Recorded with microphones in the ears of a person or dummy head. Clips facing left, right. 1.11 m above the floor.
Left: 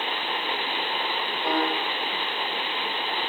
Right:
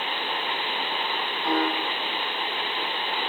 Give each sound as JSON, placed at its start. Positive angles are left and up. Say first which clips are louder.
{"t": 1.4, "sound": "a piano", "louder": "right 1 dB", "side_deg": 45, "distance_m": 1.3}